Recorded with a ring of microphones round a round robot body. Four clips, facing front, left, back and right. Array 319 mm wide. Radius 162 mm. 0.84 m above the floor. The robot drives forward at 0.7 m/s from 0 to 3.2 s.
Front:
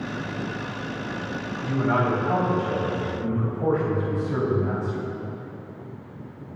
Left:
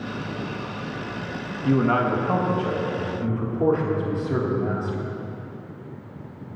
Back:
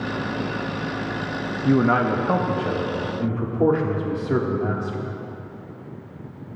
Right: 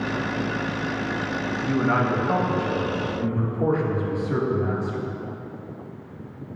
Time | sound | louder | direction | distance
1.6 | a man speaking | left 3 dB, back 5 dB | 160° left | 0.9 m